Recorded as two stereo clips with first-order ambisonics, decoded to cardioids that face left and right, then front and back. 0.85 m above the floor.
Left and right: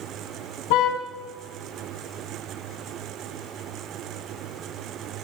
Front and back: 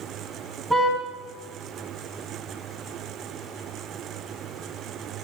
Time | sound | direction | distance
0.7 | a car horn | 95° left | 3.5 m